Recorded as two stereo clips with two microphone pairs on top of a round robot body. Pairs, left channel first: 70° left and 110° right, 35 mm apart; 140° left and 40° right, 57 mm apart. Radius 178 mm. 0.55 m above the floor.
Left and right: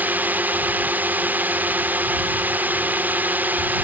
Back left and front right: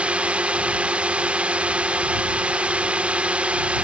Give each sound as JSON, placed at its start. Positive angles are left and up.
{"t": 0.0, "sound": "a drone", "azimuth_deg": -105}